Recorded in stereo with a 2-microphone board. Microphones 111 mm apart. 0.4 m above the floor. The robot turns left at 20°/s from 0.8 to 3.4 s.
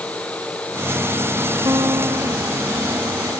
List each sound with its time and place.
1.6 s a guitar: 30° right (ahead or behind); by 2.6 s 45° right (ahead or behind)